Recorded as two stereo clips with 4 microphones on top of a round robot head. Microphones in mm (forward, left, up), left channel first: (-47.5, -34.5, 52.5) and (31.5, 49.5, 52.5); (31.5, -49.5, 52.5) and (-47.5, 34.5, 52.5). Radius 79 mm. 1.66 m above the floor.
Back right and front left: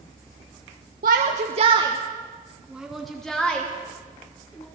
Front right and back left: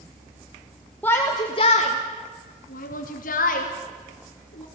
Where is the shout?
30° left, 1.3 m; by 4.7 s 60° right, 4 m.